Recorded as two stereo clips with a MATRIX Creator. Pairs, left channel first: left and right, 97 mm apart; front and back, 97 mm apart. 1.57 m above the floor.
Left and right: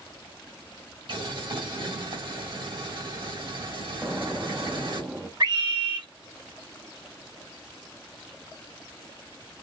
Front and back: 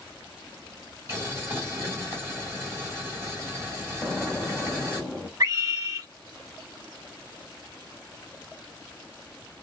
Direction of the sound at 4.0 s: 65° right.